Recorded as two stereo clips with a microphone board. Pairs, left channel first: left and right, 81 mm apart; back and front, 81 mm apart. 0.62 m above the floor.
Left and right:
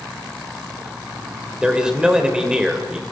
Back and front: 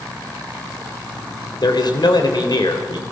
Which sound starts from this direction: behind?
A man speaking, at 1.6 s.